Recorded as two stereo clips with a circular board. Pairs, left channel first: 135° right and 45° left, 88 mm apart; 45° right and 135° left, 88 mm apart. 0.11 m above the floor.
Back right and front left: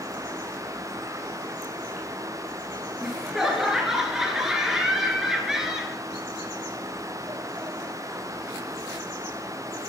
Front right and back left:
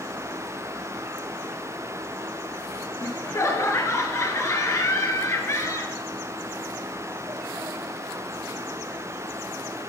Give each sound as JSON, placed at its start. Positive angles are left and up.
{"t": 3.0, "sound": "laughter", "azimuth_deg": -35, "distance_m": 1.4}